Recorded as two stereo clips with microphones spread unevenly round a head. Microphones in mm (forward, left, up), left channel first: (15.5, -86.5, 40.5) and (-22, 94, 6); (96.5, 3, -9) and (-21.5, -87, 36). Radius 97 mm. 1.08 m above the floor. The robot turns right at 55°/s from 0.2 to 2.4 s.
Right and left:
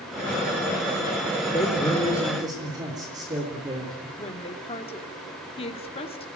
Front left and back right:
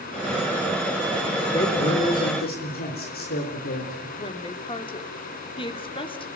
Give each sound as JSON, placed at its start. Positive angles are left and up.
{"t": 1.5, "sound": "a man speaking", "azimuth_deg": -15, "distance_m": 3.5}
{"t": 4.2, "sound": "a woman speaking", "azimuth_deg": -15, "distance_m": 2.5}